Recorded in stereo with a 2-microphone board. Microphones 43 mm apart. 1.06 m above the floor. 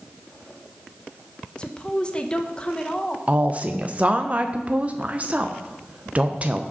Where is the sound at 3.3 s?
30° right (ahead or behind), 0.6 m.